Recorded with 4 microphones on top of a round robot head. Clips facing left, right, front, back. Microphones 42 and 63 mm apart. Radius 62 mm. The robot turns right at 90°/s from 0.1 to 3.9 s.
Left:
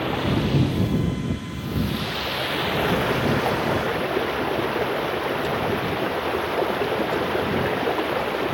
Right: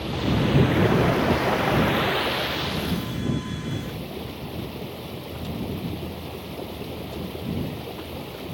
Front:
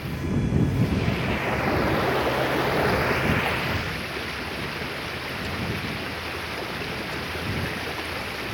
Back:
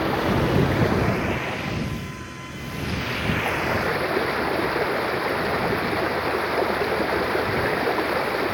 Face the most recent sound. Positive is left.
turn(degrees=135)